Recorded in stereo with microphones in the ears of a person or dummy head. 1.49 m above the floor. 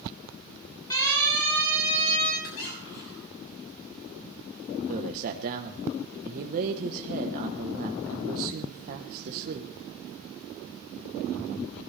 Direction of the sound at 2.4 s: 80° left.